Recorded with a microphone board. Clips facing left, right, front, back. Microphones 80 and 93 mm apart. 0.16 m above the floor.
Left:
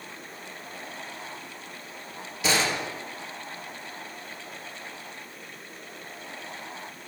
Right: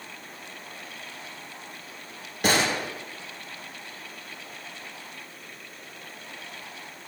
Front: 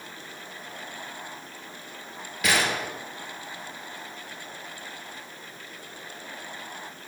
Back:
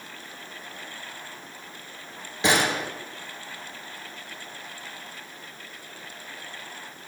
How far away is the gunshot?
About 1.8 m.